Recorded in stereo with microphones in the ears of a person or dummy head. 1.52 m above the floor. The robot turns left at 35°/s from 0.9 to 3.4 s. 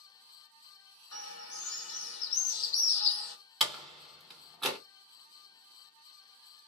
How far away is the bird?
About 1.2 m.